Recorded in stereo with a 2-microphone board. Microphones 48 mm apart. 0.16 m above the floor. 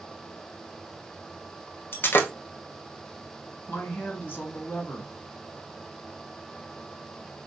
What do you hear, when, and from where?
1.9 s breaking glass: 50° left (ahead or behind), 0.8 m
3.7 s a woman speaking: 40° left (ahead or behind), 2.0 m